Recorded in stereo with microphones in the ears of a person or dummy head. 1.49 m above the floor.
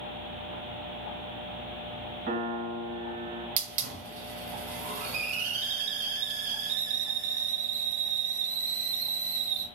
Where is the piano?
45° right (ahead or behind), 0.7 m.